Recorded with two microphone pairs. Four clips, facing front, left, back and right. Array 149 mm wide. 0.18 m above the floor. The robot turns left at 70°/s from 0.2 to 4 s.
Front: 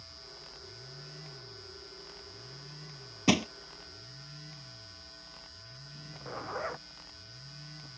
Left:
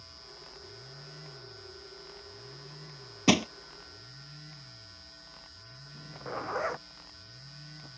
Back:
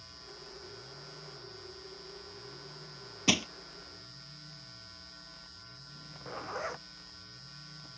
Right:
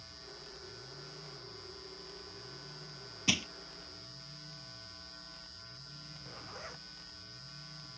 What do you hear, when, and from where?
3.3 s crushing: 80° left; by 3.5 s 65° left
5.9 s a zipper: 90° left